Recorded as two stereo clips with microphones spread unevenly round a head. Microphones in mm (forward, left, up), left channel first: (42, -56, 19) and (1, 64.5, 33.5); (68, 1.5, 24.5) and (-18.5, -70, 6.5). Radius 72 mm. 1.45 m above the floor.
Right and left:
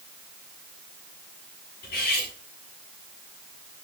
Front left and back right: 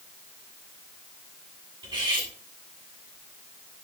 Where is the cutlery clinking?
90° right, 8 m.